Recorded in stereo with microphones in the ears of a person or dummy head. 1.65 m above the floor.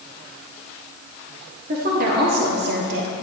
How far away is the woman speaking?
About 1.5 m.